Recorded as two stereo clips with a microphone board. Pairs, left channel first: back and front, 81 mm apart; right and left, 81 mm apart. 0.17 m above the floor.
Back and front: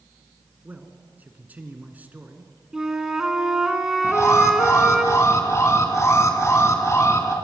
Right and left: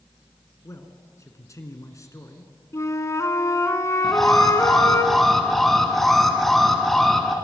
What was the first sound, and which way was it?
A man speaking, 60° right.